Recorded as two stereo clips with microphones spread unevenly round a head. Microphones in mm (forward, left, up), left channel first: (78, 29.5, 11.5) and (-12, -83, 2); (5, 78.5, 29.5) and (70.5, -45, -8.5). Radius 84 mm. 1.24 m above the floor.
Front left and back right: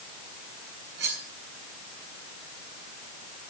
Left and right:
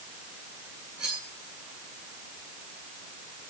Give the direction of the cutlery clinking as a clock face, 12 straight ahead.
5 o'clock.